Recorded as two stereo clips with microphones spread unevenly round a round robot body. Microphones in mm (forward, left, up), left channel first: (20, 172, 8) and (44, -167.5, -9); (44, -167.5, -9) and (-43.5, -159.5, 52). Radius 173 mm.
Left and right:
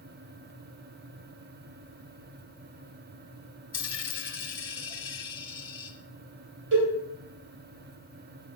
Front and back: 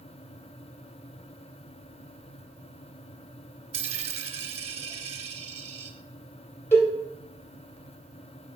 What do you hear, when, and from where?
3.7 s a dropped coin: 170° left, 1.2 m
6.7 s a cowbell: 35° right, 3 m